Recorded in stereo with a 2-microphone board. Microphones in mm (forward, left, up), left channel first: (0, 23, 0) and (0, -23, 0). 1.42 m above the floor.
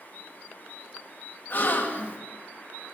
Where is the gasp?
40° left (ahead or behind), 2.5 m.